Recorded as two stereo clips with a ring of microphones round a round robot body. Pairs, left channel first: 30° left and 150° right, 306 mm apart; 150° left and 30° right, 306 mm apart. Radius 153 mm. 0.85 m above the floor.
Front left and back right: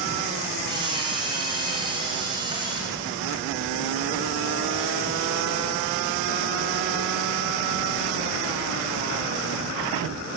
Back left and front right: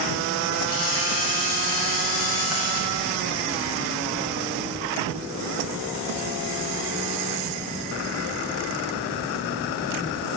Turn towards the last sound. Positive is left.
turn(degrees=135)